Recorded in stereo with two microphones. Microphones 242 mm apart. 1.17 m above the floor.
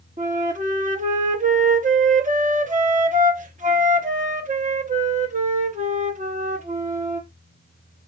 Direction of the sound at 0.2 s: 30° right (ahead or behind).